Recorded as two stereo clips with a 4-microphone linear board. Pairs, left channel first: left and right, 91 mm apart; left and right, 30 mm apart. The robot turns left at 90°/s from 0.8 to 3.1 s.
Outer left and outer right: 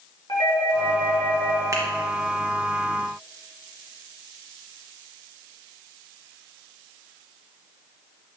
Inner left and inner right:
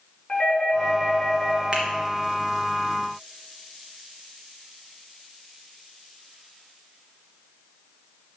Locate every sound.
0.3 s a doorbell: 60° left, 3 m; by 1.6 s 10° right, 3 m
1.7 s a finger snap: 35° right (ahead or behind), 2.5 m; by 1.8 s 25° right (ahead or behind), 2.5 m